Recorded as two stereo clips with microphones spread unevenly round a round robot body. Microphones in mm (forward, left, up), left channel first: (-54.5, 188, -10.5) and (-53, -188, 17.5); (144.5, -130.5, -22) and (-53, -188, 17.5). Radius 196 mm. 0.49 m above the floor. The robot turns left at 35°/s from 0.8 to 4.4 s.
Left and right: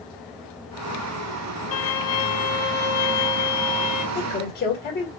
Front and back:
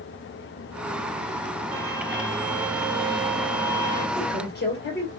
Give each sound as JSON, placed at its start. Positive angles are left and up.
{"t": 1.7, "sound": "a violin", "azimuth_deg": 145, "distance_m": 1.0}
{"t": 4.2, "sound": "a woman speaking", "azimuth_deg": 40, "distance_m": 1.9}